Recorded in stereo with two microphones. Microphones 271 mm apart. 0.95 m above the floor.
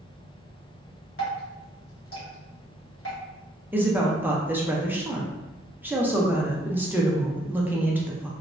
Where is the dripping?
55° left (ahead or behind), 1.1 m.